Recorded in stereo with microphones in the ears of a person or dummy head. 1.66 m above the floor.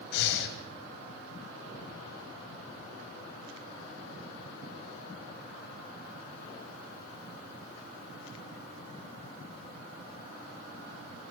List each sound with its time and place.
0.1 s breathing: 65° left (ahead or behind), 3 m